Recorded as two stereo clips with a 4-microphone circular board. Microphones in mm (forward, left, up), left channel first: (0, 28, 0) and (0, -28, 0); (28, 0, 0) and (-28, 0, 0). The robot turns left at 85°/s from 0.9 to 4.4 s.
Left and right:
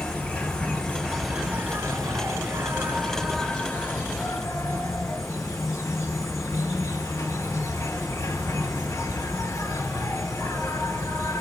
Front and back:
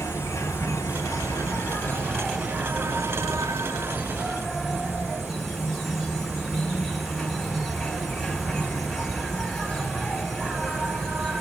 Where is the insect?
25° left, 1.3 m; by 11.4 s 85° left, 1.3 m.